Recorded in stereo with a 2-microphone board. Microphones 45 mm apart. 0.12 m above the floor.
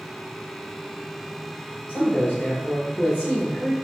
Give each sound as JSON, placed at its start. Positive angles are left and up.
{"t": 1.9, "sound": "a man speaking", "side_deg": 30, "distance_m": 1.4}